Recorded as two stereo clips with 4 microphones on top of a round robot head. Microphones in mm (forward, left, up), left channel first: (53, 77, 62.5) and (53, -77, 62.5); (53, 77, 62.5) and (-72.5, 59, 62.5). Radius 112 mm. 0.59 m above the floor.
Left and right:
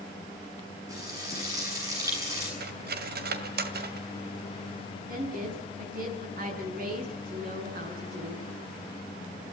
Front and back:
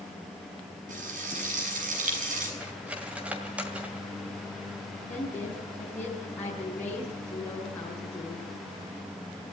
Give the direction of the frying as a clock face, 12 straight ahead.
5 o'clock.